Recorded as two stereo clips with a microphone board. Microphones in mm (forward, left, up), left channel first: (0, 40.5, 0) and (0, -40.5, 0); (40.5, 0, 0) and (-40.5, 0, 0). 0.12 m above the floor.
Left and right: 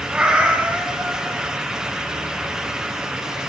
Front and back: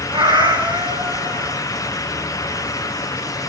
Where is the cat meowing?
165° right, 4 m.